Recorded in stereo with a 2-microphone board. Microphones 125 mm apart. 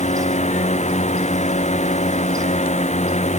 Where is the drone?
65° left (ahead or behind).